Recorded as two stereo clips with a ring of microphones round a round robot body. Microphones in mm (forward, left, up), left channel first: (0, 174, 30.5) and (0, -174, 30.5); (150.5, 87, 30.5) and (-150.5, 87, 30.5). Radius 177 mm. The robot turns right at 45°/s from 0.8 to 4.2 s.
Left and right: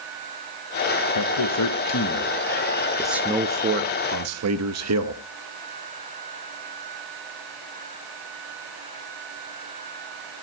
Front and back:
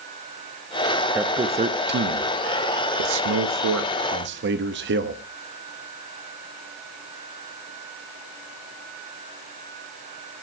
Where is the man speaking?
95° left, 0.9 m; by 5.2 s 130° right, 0.9 m.